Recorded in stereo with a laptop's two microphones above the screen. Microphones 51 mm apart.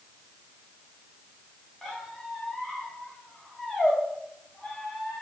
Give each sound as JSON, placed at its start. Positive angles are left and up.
{"t": 1.8, "sound": "a squeak", "side_deg": 5, "distance_m": 0.6}